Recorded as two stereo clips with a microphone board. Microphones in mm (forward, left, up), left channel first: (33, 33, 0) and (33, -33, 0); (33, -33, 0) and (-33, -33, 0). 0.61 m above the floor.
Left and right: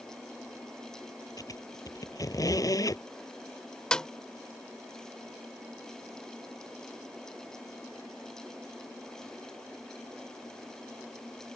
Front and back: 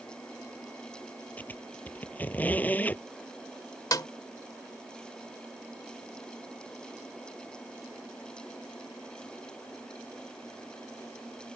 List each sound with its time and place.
1.4 s a squeak: 65° left
3.9 s a snare drum: 15° left